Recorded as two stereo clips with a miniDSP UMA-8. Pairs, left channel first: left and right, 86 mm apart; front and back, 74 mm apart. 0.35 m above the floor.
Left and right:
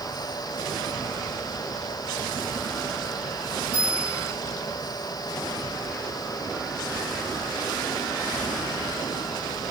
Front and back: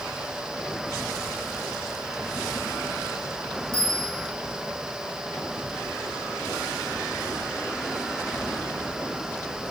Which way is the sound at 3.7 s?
160° right.